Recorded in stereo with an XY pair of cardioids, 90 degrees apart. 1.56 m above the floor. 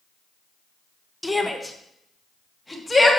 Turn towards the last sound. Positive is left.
turn(degrees=15)